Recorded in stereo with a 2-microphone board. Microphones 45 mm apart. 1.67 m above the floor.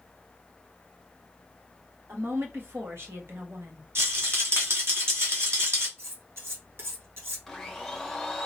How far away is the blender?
About 0.8 m.